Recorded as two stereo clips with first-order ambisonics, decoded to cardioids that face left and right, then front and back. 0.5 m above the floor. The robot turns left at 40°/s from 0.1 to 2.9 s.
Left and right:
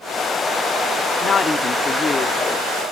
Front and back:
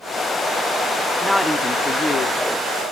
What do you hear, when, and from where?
1.2 s a woman speaking: 85° left, 0.9 m; by 2.4 s 40° left, 0.9 m